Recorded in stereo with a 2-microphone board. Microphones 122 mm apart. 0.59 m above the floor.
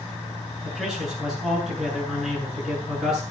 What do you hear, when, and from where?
0.6 s a man speaking: centre (ahead or behind), 8 m